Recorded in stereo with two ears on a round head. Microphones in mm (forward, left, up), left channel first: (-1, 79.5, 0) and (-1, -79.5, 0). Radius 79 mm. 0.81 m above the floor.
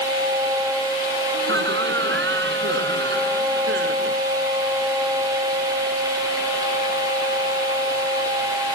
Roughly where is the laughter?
Right.